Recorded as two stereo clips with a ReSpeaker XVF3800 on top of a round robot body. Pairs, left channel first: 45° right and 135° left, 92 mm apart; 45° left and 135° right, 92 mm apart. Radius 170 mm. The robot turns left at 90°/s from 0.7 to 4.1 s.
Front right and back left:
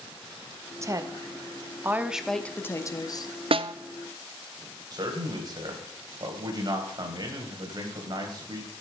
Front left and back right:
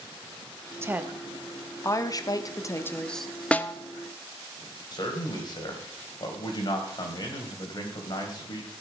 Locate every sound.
0.8 s a woman speaking: 175° left, 1.2 m; by 3.3 s 50° right, 1.2 m
3.5 s a snare drum: 125° left, 0.7 m; by 3.7 s 100° left, 0.7 m
4.9 s a man speaking: 90° left, 3 m